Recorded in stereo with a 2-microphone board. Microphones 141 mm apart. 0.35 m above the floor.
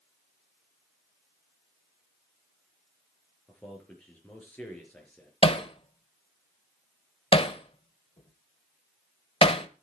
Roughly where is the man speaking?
Centre.